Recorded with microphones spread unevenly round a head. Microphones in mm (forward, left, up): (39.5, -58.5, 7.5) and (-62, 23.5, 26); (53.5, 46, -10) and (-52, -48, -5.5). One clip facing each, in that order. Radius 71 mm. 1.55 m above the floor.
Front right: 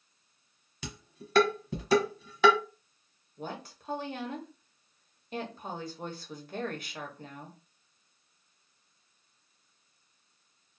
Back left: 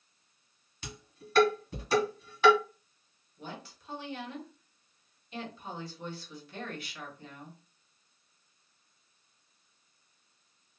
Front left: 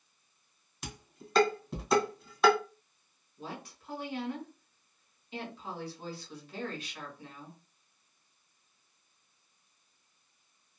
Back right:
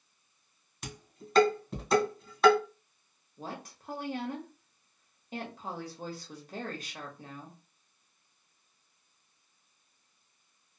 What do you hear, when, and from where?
0.8 s dishes clattering: 50° right, 0.9 m
3.4 s a woman speaking: 85° right, 1.1 m